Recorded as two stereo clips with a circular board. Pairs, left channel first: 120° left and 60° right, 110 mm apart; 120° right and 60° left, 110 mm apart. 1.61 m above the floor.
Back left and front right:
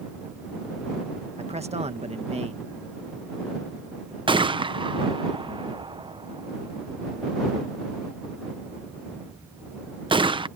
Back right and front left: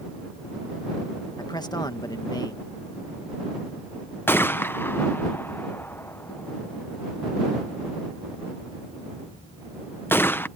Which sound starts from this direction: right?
A man speaking, at 1.4 s.